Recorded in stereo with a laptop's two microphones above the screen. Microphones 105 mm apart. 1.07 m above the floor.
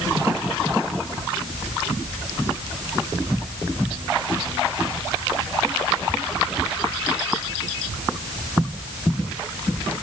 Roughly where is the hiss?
No hiss in this recording.